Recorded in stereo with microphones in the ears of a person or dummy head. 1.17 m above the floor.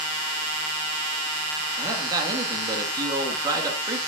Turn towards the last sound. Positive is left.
turn(degrees=-20)  # may be behind; listen again after turning